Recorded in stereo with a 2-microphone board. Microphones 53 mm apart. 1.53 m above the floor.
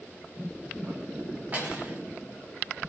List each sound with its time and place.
1.5 s cutlery clinking: 30° right (ahead or behind), 0.8 m